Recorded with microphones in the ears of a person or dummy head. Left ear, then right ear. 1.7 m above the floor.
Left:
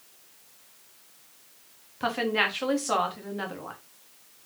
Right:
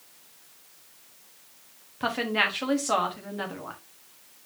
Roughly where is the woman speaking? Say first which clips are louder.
Even; centre.